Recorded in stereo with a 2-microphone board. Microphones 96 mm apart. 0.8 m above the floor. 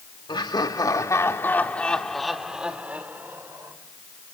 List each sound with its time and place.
0.3 s laughter: 50° left (ahead or behind), 2 m; by 3.8 s 25° right (ahead or behind), 3 m